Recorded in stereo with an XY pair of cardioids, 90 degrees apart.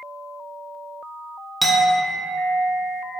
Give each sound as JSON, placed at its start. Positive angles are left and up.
{"t": 1.6, "sound": "a clink", "azimuth_deg": -15, "distance_m": 0.6}